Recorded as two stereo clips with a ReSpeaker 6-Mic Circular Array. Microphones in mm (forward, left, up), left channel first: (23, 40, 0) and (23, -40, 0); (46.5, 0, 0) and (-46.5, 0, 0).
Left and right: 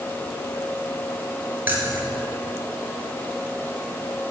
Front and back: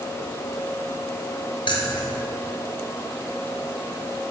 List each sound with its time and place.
1.7 s keys jangling: 25° right, 2.0 m